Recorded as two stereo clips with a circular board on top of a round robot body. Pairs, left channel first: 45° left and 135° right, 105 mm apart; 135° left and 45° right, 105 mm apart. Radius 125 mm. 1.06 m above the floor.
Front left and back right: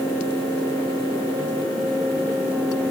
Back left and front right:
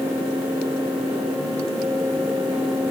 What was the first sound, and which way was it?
Only background noise.